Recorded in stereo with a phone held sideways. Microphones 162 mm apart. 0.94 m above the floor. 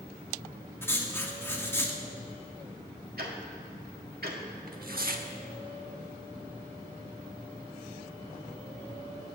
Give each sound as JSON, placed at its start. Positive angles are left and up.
{"t": 0.8, "sound": "writing", "side_deg": 15, "distance_m": 1.3}
{"t": 3.2, "sound": "ticking", "side_deg": -70, "distance_m": 1.8}
{"t": 4.7, "sound": "tearing paper", "side_deg": -65, "distance_m": 0.9}